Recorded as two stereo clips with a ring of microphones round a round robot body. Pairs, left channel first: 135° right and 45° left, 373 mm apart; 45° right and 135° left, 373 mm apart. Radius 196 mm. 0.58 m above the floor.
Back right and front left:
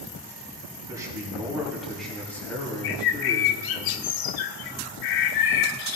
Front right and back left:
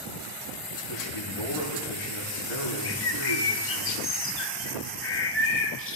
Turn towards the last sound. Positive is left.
turn(degrees=-105)